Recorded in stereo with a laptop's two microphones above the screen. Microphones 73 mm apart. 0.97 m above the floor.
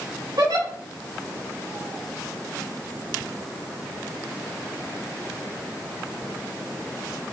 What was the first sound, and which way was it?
A giggle, 75° right (ahead or behind).